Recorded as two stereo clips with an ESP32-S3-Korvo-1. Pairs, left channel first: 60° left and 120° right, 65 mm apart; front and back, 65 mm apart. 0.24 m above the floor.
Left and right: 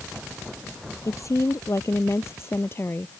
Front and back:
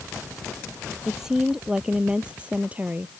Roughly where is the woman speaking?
Left.